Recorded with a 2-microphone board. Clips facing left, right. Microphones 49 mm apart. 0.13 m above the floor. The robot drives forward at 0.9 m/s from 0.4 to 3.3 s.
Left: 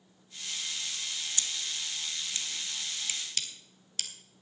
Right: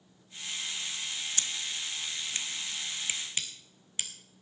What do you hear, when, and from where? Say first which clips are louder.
1.4 s scissors: right 1 dB; 35° right (ahead or behind), 1.1 m; by 4.1 s 20° right (ahead or behind), 1.8 m